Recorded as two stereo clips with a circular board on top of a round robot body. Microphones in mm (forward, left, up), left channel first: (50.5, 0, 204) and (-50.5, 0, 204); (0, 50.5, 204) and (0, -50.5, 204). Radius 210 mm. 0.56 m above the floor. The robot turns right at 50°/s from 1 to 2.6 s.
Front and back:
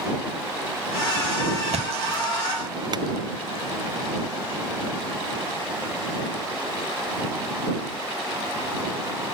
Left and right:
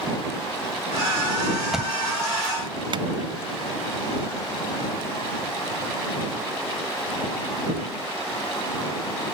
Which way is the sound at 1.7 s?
175° right.